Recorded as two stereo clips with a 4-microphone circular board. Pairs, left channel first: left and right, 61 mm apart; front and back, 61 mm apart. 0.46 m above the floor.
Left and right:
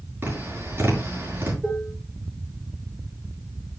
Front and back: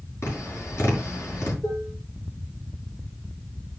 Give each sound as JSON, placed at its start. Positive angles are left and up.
{"t": 0.2, "sound": "tapping", "azimuth_deg": -35, "distance_m": 5.5}
{"t": 1.6, "sound": "dishes clattering", "azimuth_deg": -15, "distance_m": 6.5}